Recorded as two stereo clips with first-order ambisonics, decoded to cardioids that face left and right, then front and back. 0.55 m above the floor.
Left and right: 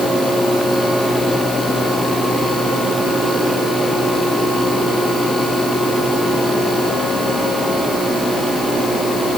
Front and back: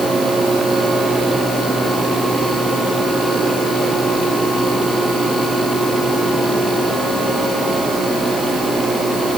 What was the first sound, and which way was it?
Only background noise.